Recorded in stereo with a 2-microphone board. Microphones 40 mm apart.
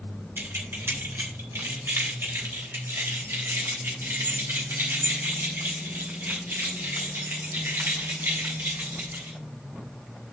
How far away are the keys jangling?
About 3 m.